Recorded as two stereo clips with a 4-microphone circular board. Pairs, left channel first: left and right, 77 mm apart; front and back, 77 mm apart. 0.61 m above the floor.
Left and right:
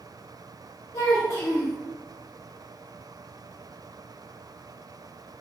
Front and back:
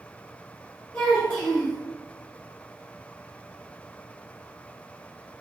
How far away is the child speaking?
About 1.0 m.